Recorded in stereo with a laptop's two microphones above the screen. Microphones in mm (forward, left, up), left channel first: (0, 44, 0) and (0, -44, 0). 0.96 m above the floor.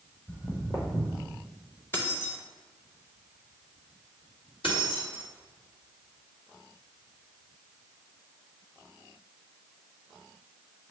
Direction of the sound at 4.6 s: 80° left.